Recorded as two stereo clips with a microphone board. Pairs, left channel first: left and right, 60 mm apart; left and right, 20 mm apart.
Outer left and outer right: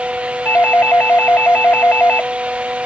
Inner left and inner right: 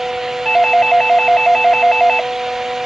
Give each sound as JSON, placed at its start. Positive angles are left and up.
{"t": 0.5, "sound": "a doorbell", "side_deg": 35}